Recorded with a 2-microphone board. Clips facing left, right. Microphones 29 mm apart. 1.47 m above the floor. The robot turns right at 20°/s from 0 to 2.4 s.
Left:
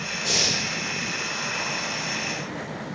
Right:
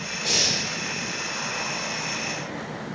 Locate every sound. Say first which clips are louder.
0.2 s breathing: even; 15° right (ahead or behind), 0.8 m